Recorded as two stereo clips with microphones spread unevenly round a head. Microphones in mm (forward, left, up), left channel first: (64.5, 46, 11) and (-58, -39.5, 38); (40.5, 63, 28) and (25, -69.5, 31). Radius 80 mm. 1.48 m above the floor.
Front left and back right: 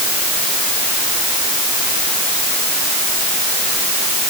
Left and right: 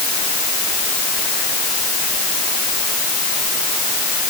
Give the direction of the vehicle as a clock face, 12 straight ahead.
I don't hear a vehicle.